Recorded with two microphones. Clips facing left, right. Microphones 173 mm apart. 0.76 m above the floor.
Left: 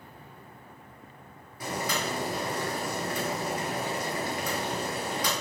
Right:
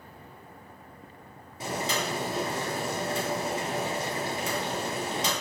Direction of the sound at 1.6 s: 25° right (ahead or behind).